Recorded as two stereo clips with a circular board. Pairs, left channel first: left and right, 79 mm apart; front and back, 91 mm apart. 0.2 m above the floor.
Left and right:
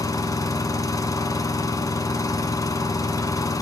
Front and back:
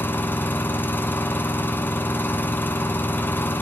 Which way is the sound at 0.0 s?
65° left.